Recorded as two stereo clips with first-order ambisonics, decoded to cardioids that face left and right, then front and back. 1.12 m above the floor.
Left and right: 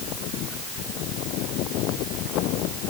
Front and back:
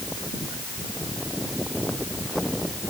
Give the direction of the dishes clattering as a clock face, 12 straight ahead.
No dishes clattering in this recording.